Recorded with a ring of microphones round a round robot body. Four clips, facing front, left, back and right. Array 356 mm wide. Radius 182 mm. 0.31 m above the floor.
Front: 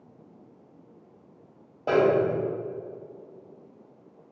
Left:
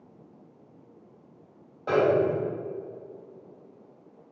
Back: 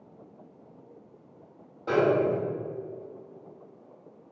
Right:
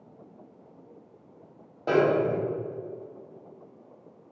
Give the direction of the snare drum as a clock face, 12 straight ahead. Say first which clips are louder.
Even, front 2 dB; 1 o'clock.